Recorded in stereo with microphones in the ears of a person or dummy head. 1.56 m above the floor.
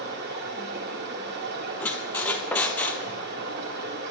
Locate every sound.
0.0 s running water: 55° right (ahead or behind), 1.7 m
1.8 s a squeak: 5° left (ahead or behind), 1.0 m